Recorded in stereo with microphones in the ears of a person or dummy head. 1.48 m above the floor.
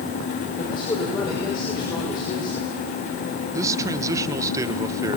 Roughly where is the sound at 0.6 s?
Left.